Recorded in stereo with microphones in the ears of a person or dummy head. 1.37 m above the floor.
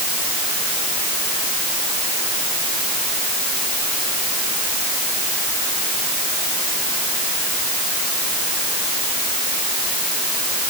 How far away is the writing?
No writing in this recording.